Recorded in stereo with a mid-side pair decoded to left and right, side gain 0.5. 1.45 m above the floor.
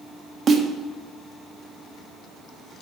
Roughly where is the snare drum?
Ahead right.